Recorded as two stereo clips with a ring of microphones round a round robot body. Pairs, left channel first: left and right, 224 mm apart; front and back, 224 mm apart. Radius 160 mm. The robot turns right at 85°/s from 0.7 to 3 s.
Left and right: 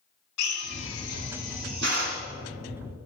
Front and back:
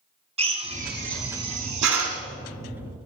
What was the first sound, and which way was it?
A drill, 115° left.